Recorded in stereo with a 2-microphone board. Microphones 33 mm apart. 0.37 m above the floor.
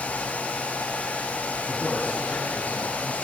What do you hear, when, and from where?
1.7 s a man speaking: 65° left (ahead or behind), 3.5 m